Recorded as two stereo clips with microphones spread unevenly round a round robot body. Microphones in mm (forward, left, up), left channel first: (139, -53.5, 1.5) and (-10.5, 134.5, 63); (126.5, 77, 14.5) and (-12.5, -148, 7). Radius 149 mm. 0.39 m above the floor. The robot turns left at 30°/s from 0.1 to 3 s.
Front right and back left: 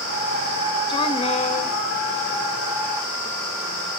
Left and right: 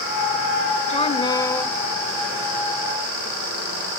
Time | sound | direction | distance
0.9 | a woman speaking | straight ahead | 1.3 m